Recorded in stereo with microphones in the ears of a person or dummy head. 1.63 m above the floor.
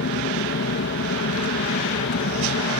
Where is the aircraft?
55° left (ahead or behind).